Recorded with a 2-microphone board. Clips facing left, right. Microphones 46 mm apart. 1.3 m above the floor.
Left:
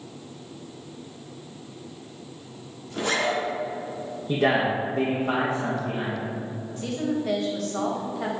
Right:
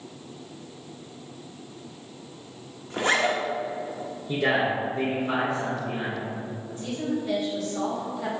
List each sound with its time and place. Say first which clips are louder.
2.9 s a zipper: right 2 dB; 35° right (ahead or behind), 0.9 m
4.3 s a man speaking: left 2 dB; 30° left (ahead or behind), 1.1 m
6.8 s a woman speaking: left 2 dB; 80° left, 1.5 m